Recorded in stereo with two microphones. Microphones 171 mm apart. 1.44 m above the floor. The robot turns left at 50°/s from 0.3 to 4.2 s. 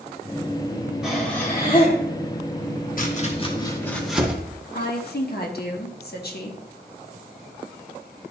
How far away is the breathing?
About 1.9 m.